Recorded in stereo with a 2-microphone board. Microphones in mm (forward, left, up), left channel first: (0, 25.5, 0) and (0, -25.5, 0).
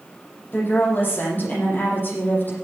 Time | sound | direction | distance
0.5 | a woman speaking | 35° left (ahead or behind) | 9 m